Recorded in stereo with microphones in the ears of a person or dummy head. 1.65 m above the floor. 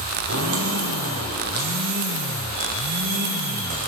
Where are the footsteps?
50° right (ahead or behind), 2.5 m.